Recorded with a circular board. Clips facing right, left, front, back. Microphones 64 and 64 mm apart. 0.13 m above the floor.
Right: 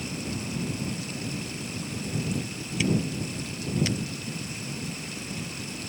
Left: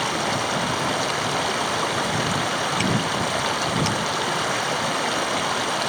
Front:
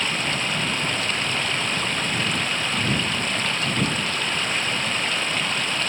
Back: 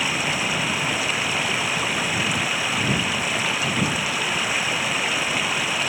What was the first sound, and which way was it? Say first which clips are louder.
Running water: left 11 dB, back 1 dB; 100° left.